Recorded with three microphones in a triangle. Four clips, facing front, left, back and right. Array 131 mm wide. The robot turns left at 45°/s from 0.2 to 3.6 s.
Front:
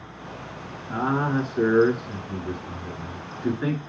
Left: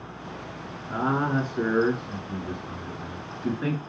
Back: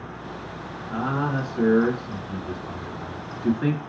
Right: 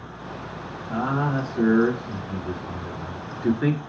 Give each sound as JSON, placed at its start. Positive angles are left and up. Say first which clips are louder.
{"t": 0.9, "sound": "a man speaking", "louder": "even, front 2 dB", "azimuth_deg": 40, "distance_m": 1.6}